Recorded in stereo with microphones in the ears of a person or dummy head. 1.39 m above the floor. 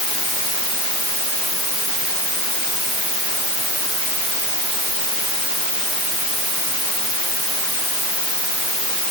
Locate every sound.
Only background noise.